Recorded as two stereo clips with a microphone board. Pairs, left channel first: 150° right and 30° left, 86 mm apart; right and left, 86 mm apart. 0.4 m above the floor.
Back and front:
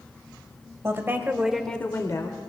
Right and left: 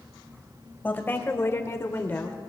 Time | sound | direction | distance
0.8 | a woman speaking | 25° right | 1.8 m